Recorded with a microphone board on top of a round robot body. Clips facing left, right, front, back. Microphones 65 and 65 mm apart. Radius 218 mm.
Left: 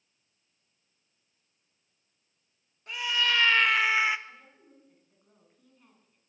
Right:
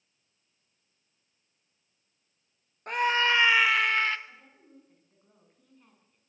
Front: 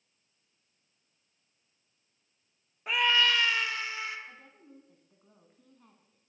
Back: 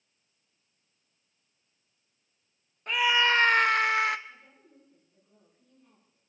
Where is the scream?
80° right, 0.9 m; by 4.2 s 165° left, 1.3 m.